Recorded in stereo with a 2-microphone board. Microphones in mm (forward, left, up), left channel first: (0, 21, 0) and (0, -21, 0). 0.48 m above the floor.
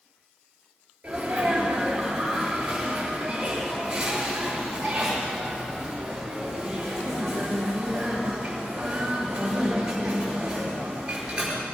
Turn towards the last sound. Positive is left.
turn(degrees=-15)  # may be behind; listen again after turning